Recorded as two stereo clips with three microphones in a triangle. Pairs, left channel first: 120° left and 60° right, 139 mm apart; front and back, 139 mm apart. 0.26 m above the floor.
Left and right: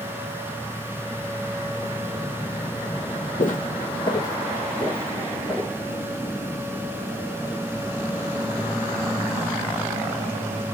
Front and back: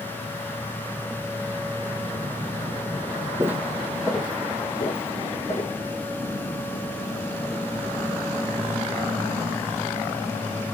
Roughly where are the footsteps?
Behind left.